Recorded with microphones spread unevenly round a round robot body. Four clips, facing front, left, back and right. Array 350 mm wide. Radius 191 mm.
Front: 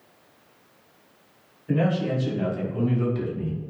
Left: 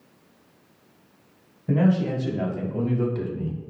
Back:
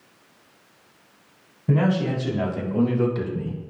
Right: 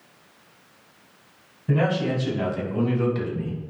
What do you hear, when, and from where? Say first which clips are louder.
1.7 s a man speaking: left 1 dB, back 2 dB; 175° left, 4 m; by 3.6 s 165° right, 1.7 m